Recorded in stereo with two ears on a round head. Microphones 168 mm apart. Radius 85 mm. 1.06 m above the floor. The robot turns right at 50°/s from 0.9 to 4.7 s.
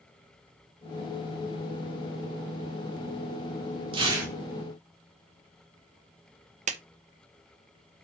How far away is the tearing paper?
About 3 m.